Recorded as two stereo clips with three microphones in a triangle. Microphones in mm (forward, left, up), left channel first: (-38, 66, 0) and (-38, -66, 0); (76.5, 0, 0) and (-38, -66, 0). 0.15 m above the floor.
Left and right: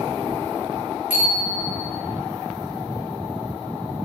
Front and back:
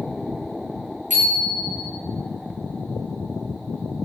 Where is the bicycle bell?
165° right, 9 m.